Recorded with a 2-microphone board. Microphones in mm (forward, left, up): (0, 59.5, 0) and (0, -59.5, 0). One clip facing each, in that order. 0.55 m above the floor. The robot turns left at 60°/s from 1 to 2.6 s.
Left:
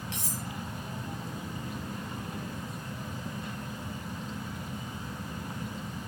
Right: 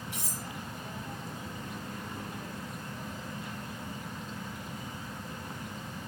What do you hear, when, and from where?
0.1 s cutlery clinking: 80° left, 6.5 m